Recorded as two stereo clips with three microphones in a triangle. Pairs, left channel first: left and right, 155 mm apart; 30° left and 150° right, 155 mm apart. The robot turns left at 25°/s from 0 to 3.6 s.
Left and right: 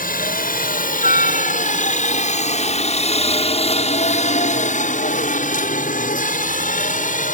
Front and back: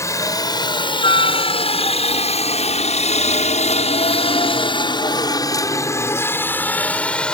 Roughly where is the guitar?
No guitar in this recording.